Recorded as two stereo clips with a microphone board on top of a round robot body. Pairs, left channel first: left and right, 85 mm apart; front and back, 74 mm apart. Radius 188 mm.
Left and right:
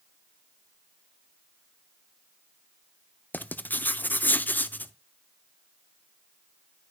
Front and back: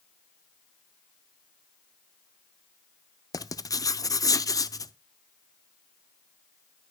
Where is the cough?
I don't hear a cough.